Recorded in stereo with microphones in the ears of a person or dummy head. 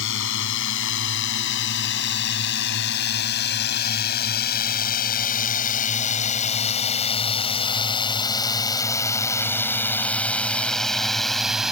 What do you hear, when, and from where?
0.0 s a drone: 80° left; by 11.7 s centre (ahead or behind)